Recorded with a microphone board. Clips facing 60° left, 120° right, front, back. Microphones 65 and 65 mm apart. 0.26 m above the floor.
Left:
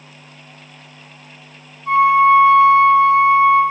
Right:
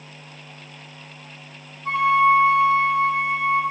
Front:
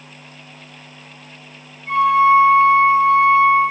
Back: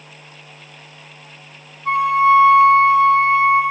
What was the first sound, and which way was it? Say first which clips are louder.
A flute: left 6 dB, front 1 dB; 160° right.